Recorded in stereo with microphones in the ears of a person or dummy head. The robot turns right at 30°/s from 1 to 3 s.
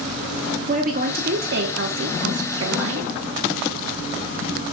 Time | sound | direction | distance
0.7 | a woman speaking | 135° right | 1.4 m